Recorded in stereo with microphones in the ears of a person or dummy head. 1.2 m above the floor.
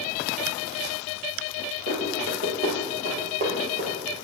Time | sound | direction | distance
1.9 | running footsteps | 50° right (ahead or behind) | 2.5 m